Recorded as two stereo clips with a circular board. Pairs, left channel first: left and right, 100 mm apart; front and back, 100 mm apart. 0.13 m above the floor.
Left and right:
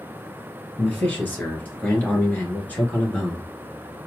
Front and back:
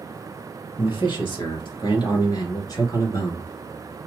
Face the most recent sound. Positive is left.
turn(degrees=25)